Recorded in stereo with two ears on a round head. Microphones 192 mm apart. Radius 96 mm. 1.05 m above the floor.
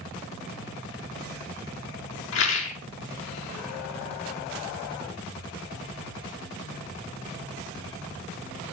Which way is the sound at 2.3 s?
65° left (ahead or behind).